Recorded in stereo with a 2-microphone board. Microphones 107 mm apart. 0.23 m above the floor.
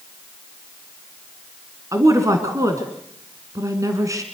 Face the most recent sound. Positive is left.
turn(degrees=-30)  # may be behind; listen again after turning